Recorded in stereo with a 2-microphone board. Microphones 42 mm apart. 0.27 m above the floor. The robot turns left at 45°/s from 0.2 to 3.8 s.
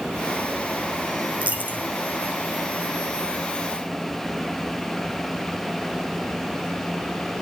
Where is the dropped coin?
35° right (ahead or behind), 2 m; by 1.8 s 50° right (ahead or behind), 2 m.